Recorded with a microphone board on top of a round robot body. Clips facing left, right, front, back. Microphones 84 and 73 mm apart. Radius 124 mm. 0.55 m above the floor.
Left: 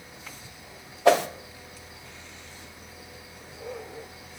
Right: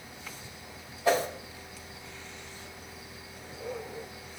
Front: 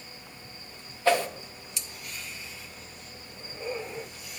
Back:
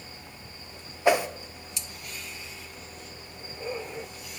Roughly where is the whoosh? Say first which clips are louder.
Left 6 dB, back 1 dB; left.